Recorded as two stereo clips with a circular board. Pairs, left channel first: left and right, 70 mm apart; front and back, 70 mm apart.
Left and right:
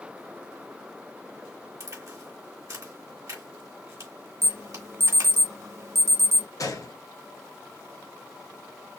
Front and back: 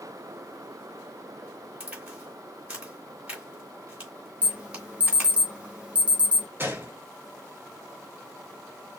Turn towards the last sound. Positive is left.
turn(degrees=120)